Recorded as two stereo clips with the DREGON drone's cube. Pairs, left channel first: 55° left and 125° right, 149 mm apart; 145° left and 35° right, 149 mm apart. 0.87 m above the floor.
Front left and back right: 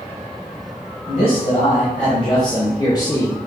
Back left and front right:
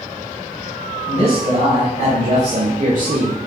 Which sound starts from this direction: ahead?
A man speaking, at 1.1 s.